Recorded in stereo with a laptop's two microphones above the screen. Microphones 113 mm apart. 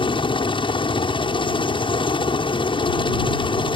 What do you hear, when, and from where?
0.0 s a helicopter: 50° left (ahead or behind)